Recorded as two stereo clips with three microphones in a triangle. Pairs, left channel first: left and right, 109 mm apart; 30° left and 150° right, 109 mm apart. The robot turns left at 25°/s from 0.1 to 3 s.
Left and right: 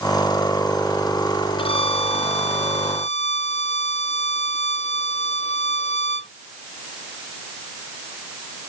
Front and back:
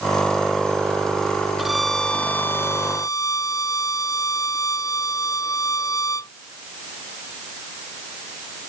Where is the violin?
125° left; by 6.3 s 90° left.